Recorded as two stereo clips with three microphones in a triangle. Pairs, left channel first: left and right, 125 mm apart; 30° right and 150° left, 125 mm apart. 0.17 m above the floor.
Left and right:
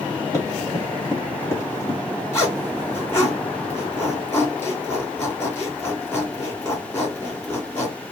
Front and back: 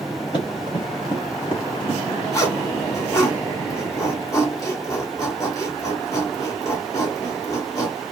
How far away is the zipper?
About 2.5 m.